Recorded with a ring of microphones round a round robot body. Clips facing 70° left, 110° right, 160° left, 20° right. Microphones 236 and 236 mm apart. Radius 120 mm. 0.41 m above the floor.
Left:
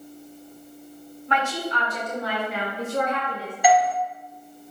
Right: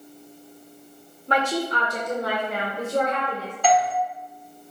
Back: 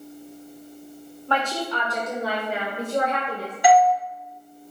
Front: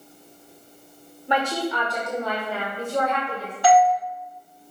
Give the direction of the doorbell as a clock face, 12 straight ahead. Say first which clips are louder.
Left 2 dB, even; 8 o'clock.